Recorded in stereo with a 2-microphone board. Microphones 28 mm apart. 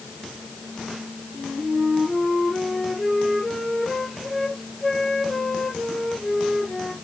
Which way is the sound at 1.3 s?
10° left (ahead or behind).